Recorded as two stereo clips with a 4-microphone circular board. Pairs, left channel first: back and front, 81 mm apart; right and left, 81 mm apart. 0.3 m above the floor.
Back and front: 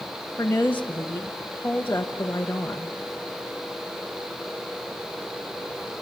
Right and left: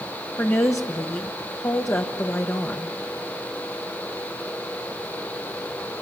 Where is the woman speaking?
125° right, 1.1 m.